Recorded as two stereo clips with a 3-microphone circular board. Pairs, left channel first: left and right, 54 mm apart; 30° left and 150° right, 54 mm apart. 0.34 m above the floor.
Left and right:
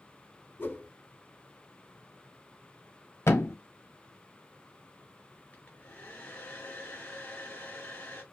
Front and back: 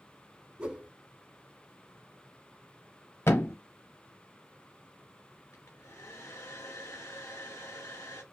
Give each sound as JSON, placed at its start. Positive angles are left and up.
{"t": 0.6, "sound": "a whoosh", "azimuth_deg": 140, "distance_m": 0.6}
{"t": 3.3, "sound": "a thud", "azimuth_deg": 60, "distance_m": 0.6}
{"t": 5.5, "sound": "a hair dryer", "azimuth_deg": 35, "distance_m": 1.2}